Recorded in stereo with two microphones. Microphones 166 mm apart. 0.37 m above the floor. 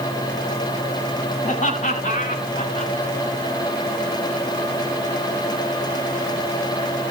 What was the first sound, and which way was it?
Laughter, 45° left (ahead or behind).